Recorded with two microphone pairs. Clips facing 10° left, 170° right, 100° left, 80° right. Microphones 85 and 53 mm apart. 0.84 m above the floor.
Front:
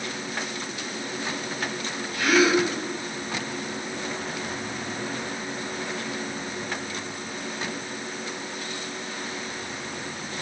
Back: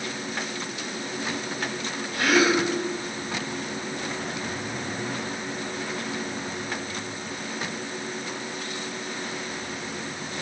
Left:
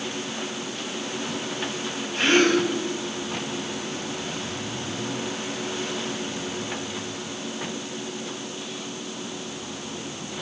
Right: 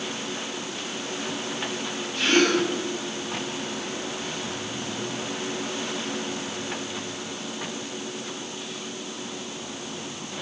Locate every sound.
2.1 s a gasp: 150° left, 3.5 m